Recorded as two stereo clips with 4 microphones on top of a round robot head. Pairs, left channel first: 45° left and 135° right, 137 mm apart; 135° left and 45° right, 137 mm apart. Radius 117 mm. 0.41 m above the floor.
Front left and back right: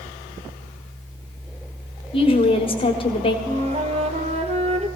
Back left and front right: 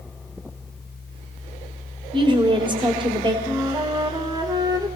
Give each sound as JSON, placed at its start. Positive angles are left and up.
{"t": 2.1, "sound": "a woman speaking", "azimuth_deg": 5, "distance_m": 1.9}
{"t": 3.5, "sound": "a flute", "azimuth_deg": -100, "distance_m": 1.7}